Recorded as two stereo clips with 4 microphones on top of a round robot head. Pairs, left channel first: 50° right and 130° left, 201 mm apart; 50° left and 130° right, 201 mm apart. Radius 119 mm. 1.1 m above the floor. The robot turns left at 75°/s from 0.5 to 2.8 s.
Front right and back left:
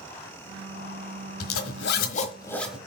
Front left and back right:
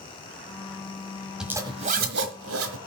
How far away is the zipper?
About 1.3 m.